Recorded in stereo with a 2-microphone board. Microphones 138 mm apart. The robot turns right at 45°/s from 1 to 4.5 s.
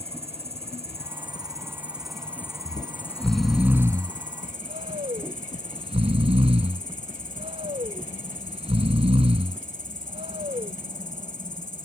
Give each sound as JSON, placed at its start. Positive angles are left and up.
{"t": 0.0, "sound": "an insect", "azimuth_deg": -50}
{"t": 2.6, "sound": "snoring", "side_deg": 35}